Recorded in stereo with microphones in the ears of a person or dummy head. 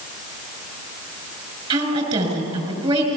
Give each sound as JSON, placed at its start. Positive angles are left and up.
{"t": 1.7, "sound": "a woman speaking", "side_deg": -30, "distance_m": 6.5}